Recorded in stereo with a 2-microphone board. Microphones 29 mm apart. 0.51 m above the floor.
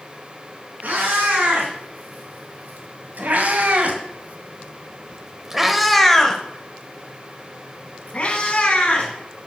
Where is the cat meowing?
85° right, 2.5 m; by 9.1 s 45° left (ahead or behind), 2 m.